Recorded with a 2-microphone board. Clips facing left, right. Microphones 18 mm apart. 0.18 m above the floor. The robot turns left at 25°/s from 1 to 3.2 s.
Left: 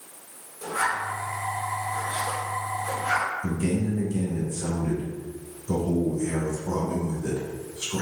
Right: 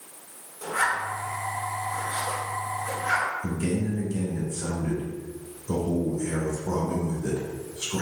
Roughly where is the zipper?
Centre.